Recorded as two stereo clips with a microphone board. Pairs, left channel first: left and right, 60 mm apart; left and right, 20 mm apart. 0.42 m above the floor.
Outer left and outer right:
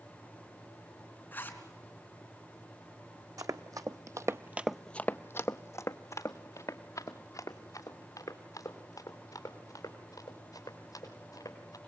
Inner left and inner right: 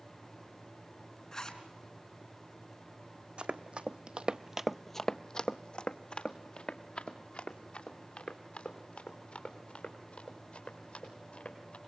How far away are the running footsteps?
About 1.3 m.